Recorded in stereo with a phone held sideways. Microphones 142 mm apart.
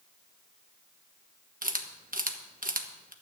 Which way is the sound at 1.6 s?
80° right.